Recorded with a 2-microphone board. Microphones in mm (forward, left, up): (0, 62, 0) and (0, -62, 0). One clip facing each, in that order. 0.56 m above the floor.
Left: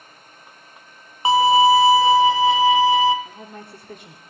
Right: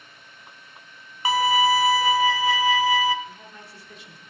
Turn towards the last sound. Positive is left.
turn(degrees=50)  # may be behind; listen again after turning